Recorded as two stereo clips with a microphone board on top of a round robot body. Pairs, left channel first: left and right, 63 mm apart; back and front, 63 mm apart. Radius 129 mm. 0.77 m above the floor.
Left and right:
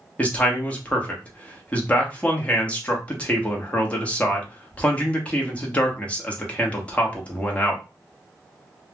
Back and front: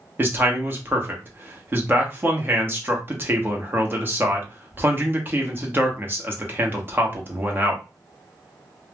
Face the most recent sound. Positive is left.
turn(degrees=35)